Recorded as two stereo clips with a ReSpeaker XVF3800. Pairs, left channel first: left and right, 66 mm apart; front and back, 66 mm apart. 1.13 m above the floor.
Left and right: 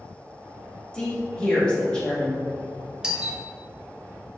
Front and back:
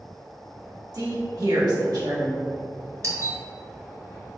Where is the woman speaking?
165° left, 1.5 m.